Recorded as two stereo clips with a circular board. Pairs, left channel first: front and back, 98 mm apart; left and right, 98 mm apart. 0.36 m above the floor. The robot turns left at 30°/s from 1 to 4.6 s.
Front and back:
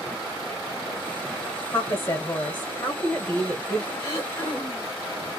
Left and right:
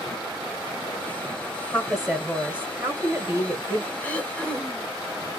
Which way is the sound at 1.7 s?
10° right.